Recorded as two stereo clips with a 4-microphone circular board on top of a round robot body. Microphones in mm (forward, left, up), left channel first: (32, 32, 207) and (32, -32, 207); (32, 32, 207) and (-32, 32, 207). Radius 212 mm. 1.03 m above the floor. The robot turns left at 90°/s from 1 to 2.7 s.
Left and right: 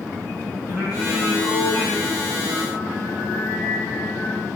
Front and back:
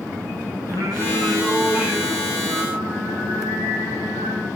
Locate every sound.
0.7 s singing: 150° left, 8.5 m; by 4.5 s 5° right, 8.5 m